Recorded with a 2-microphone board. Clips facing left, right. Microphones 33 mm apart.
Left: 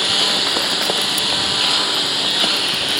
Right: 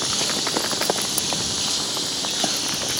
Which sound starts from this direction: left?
A lawn mower, at 0.0 s.